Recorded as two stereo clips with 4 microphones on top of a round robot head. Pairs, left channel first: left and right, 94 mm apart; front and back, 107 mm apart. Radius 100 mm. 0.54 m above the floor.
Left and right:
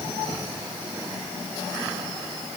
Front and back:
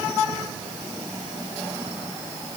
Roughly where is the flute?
I don't hear a flute.